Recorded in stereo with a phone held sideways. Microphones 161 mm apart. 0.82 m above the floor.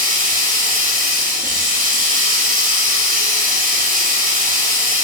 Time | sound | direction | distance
0.0 | running water | 65° right (ahead or behind) | 0.8 m